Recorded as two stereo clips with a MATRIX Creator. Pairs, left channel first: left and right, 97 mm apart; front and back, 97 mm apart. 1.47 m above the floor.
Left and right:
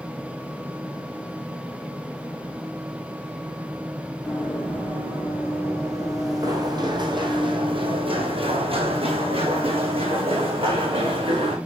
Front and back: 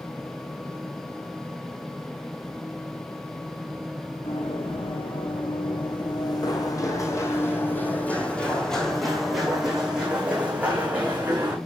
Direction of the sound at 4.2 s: 10° right.